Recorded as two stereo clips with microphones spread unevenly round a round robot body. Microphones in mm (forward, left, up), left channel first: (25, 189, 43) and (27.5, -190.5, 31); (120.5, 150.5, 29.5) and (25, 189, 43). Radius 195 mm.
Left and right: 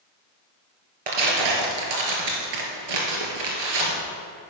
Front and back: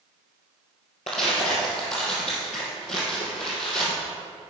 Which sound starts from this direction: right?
Tearing paper, at 1.1 s.